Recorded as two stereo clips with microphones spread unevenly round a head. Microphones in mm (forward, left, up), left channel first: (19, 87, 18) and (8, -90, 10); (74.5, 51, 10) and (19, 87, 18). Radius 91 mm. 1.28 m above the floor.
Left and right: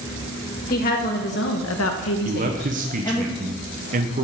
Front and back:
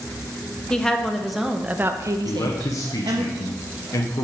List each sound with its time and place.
0.7 s a woman speaking: 45° left, 1.8 m; by 3.2 s 165° left, 1.6 m
2.2 s a man speaking: 60° right, 0.8 m